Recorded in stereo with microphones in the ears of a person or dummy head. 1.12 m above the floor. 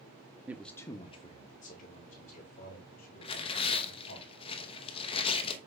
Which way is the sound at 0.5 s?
10° right (ahead or behind).